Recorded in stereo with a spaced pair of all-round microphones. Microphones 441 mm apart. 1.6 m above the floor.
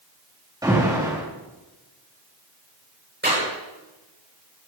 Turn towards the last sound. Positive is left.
turn(degrees=-25)  # may be behind; listen again after turning